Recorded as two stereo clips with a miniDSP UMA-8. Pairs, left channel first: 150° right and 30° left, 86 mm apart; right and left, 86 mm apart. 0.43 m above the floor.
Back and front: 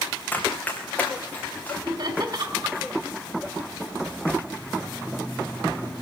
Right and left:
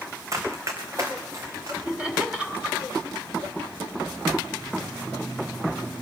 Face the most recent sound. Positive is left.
turn(degrees=15)